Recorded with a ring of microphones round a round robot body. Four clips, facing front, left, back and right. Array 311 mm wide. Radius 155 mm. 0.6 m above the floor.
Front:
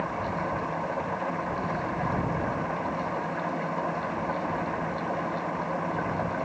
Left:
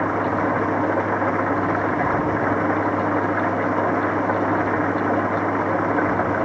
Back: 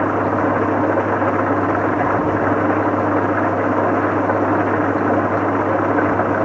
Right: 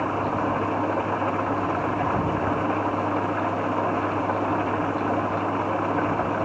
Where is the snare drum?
I don't hear a snare drum.